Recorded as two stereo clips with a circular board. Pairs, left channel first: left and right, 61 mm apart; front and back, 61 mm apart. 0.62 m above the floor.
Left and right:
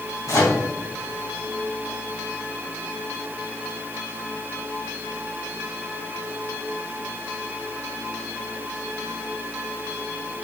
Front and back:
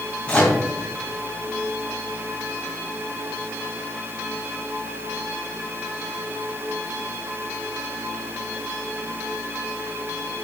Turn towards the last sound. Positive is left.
turn(degrees=70)